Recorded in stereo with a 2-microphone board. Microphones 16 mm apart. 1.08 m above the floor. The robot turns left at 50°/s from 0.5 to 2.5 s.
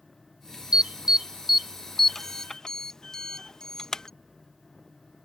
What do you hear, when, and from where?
0.7 s an alarm: 50° right (ahead or behind); by 4.1 s 40° left (ahead or behind)